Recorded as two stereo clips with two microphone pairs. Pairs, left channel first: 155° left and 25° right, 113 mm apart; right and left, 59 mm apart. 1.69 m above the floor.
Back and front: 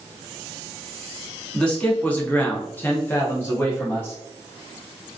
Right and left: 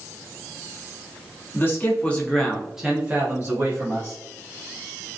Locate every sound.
1.5 s a man speaking: 125° right, 0.9 m; by 4.2 s 85° left, 1.0 m